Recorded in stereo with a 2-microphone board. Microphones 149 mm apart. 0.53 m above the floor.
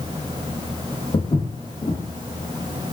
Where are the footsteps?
40° left (ahead or behind), 0.8 m.